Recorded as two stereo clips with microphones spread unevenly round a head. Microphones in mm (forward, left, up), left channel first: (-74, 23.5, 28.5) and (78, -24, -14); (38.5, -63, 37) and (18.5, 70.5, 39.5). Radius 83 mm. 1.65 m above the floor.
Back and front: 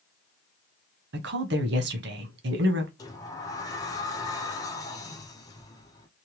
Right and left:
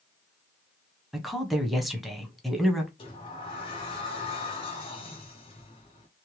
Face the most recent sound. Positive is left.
turn(degrees=-140)